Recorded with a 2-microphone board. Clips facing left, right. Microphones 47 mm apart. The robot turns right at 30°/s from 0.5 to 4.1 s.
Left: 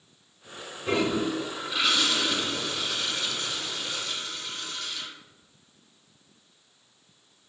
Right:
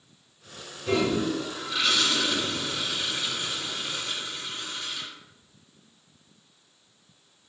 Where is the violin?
I don't hear a violin.